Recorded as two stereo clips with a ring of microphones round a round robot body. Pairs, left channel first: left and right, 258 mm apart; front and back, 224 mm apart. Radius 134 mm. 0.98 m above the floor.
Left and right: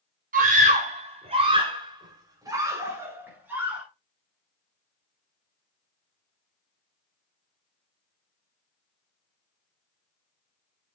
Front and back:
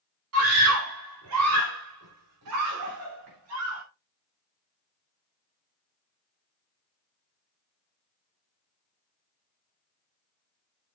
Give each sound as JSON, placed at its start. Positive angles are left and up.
{"t": 0.3, "sound": "a scream", "azimuth_deg": -150, "distance_m": 3.5}